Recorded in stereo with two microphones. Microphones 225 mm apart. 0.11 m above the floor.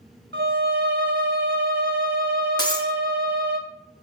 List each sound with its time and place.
0.3 s a violin: 50° right (ahead or behind), 0.6 m
2.6 s breaking glass: 20° left (ahead or behind), 0.7 m